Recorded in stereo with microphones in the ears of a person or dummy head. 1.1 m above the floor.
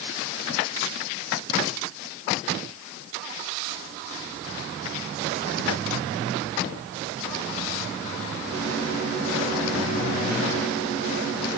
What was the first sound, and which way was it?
Only background noise.